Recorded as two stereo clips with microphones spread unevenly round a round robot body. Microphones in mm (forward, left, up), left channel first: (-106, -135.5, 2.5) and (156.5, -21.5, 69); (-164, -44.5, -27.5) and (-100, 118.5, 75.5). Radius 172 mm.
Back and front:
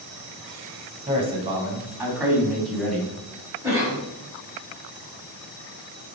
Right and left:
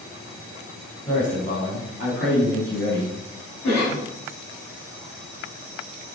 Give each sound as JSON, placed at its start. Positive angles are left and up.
{"t": 1.1, "sound": "a man speaking", "azimuth_deg": -45, "distance_m": 4.0}
{"t": 3.6, "sound": "a cough", "azimuth_deg": -60, "distance_m": 4.5}